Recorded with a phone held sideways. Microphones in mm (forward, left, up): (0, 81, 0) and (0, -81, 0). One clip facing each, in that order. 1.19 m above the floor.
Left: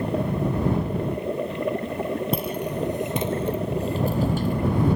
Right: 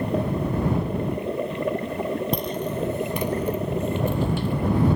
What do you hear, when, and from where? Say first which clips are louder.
2.3 s footsteps: even; 5° left (ahead or behind); by 5.0 s 45° left (ahead or behind)